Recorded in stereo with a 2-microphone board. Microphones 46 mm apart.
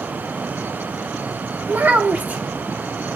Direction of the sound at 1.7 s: 30° right (ahead or behind).